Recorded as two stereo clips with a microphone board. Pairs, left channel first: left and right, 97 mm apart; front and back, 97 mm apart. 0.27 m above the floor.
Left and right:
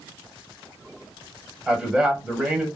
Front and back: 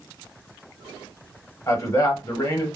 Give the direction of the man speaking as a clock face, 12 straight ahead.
12 o'clock.